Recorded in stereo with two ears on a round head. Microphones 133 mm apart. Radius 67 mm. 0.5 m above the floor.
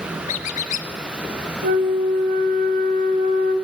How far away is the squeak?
About 0.5 m.